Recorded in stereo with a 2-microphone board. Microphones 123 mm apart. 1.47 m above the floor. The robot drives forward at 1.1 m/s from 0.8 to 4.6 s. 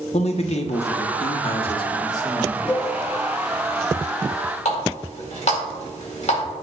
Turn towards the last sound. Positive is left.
turn(degrees=70)  # may be behind; listen again after turning